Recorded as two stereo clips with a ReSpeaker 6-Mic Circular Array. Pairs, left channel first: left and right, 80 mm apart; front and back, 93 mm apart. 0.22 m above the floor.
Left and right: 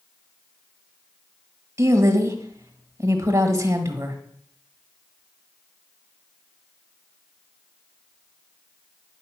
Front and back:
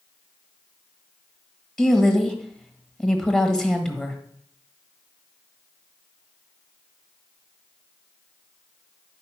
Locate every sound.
1.8 s a woman speaking: 80° right, 1.5 m